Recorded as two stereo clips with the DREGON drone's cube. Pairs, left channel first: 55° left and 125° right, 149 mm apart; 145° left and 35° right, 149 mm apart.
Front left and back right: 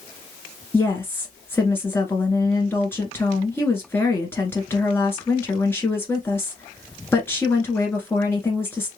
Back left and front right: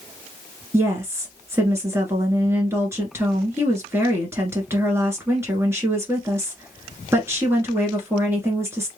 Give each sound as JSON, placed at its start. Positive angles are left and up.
{"t": 0.7, "sound": "a woman speaking", "azimuth_deg": 5, "distance_m": 1.5}